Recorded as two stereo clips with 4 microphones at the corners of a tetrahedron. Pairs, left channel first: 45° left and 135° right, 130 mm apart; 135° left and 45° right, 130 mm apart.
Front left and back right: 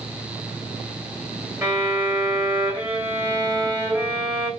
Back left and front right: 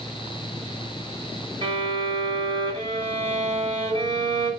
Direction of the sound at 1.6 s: 70° right.